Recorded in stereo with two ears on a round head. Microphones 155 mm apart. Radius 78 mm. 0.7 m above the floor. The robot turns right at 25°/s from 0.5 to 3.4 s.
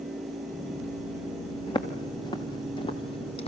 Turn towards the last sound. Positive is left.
turn(degrees=40)  # may be behind; listen again after turning